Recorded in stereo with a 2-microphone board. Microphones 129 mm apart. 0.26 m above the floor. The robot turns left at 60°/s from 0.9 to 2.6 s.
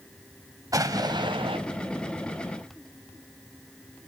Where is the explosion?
40° right, 1.1 m; by 1.6 s 85° right, 1.1 m.